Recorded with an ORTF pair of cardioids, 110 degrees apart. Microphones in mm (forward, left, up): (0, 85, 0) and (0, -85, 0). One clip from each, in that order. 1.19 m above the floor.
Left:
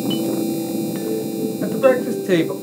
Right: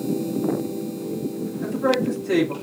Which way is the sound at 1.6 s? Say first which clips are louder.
Left 6 dB; 60° left.